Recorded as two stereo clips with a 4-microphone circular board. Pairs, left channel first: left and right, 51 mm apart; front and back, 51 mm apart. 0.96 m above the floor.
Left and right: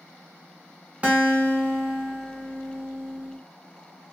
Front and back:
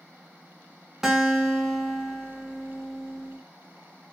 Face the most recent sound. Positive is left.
turn(degrees=-110)